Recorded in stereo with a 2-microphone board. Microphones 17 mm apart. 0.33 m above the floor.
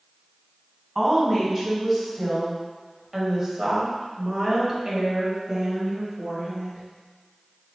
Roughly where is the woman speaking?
Centre.